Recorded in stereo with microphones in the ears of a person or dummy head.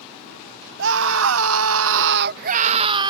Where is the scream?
60° right (ahead or behind); by 3.1 s 30° right (ahead or behind).